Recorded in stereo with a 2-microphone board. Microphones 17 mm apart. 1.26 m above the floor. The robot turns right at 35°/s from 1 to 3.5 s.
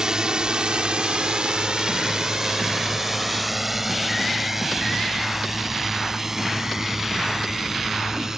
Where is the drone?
40° right (ahead or behind); by 8.4 s 25° right (ahead or behind).